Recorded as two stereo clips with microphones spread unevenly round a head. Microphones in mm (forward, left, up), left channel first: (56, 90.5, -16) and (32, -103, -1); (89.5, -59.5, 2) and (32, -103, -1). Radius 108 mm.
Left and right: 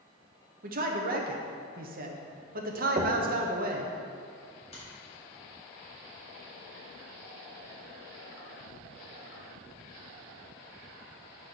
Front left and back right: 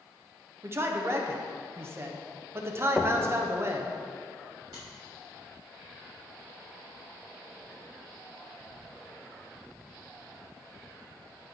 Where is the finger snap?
145° left, 2.5 m.